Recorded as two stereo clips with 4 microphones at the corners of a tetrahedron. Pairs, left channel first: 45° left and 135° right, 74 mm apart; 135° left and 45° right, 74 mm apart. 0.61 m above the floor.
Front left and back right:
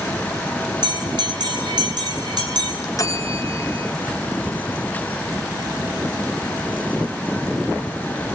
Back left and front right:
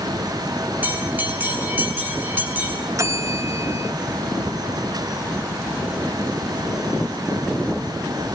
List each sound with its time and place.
0.8 s a bell: 110° right, 5.5 m
3.0 s a bell: 5° left, 3 m